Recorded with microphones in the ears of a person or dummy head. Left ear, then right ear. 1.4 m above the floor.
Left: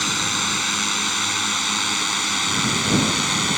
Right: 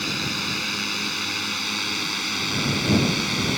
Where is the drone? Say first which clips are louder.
Left 4 dB; 45° left (ahead or behind).